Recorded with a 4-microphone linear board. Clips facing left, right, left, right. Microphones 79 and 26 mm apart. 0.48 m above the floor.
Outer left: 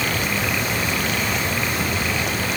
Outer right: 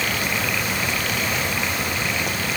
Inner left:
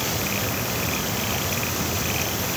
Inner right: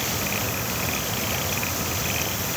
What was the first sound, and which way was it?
Only background noise.